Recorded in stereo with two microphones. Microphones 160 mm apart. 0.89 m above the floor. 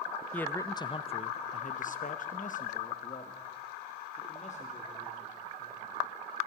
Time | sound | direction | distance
0.3 | a man speaking | 10° left (ahead or behind) | 0.6 m